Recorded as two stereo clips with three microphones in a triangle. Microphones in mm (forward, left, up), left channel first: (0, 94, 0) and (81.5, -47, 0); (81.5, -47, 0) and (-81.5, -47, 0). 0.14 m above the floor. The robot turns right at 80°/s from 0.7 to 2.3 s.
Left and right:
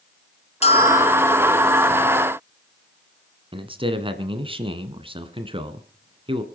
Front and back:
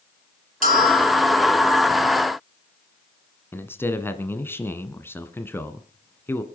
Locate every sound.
0.6 s a bell: 160° left, 3 m; by 1.4 s 140° right, 3 m
3.5 s a man speaking: 65° right, 1.6 m